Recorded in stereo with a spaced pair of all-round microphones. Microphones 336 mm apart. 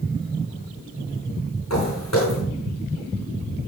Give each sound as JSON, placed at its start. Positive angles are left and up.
{"t": 1.7, "sound": "footsteps", "side_deg": 50, "distance_m": 5.0}